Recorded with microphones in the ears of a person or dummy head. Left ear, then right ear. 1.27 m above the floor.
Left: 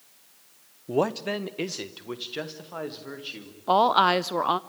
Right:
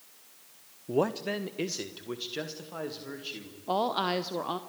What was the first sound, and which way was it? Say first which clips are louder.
A man speaking: left 3 dB; 15° left (ahead or behind).